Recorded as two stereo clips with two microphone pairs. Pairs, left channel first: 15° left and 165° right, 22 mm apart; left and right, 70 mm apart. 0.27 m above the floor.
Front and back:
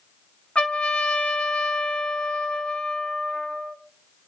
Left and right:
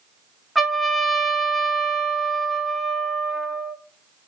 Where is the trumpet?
5° right, 0.6 m.